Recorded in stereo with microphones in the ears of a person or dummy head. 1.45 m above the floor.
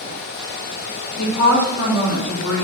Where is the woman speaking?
75° left (ahead or behind), 2.5 m.